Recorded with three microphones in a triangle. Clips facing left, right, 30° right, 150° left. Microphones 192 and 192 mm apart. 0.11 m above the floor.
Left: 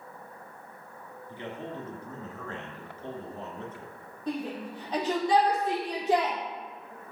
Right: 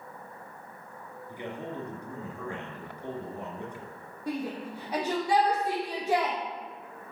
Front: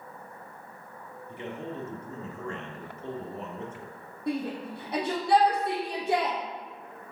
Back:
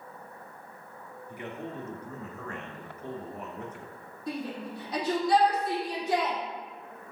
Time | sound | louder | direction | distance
1.3 | a man speaking | right 1 dB, front 2 dB | 30° right | 1.8 m
4.3 | a shout | even, front 4 dB | 10° right | 3 m